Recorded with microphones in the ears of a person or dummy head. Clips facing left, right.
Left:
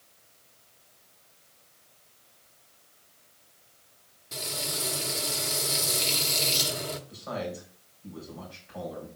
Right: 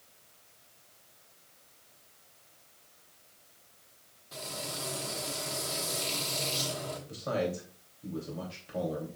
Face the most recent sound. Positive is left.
turn(degrees=-55)  # may be behind; listen again after turning